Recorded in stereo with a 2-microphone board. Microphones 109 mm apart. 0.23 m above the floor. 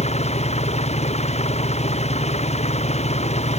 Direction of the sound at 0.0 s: 75° left (ahead or behind).